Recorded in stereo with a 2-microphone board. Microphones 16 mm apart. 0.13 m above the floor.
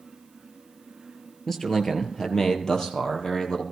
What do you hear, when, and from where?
1.5 s a man speaking: 25° left (ahead or behind), 2 m; by 3.6 s 50° left (ahead or behind), 3 m